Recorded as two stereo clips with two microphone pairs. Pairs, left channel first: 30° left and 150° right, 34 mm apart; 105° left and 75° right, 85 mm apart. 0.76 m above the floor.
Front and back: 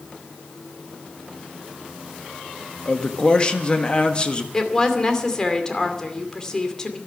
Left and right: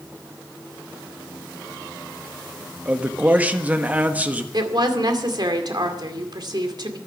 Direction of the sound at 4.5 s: 40° right.